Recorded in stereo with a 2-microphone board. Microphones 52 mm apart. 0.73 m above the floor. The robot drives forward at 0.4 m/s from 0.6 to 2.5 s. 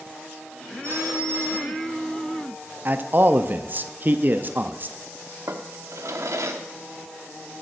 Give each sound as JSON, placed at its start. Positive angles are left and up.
{"t": 0.8, "sound": "a phone ringing", "side_deg": -70, "distance_m": 3.5}
{"t": 2.9, "sound": "a man speaking", "side_deg": -40, "distance_m": 0.5}
{"t": 5.5, "sound": "a drawer", "side_deg": -75, "distance_m": 0.8}